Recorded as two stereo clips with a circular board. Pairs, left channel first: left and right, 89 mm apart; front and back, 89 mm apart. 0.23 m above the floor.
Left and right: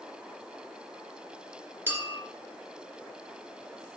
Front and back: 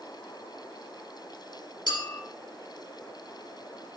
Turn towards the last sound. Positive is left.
turn(degrees=-25)